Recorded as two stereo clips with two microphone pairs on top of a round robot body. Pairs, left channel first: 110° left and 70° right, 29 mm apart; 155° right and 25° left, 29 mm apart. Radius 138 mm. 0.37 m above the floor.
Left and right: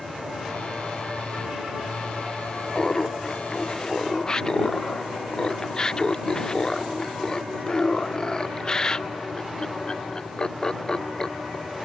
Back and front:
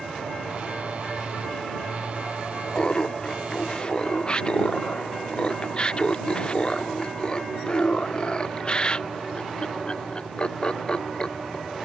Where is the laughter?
165° left.